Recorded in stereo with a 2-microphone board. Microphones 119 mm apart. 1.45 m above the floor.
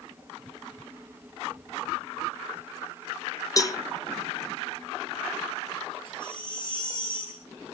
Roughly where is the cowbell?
Left.